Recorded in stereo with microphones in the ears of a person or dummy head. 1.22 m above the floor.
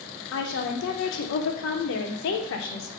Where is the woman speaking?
70° left (ahead or behind), 0.6 m.